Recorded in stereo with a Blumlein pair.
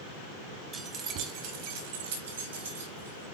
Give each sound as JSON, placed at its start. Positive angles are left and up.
{"t": 0.7, "sound": "keys jangling", "azimuth_deg": -20, "distance_m": 1.3}